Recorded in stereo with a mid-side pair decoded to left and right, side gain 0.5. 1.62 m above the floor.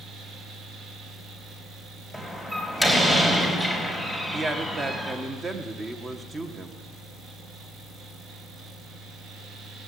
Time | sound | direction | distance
0.0 | a fan | 65° right | 1.5 m
2.1 | a door slam | 15° right | 4 m
4.3 | a man speaking | 35° right | 1.6 m